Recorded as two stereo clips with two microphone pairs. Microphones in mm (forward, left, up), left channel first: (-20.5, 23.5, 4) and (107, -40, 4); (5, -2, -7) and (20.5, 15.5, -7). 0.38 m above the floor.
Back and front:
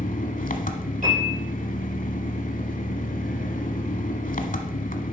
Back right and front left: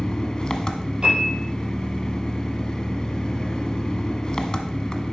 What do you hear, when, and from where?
0.0 s an engine running: 170° left, 1.0 m
1.0 s a piano: 5° right, 5.5 m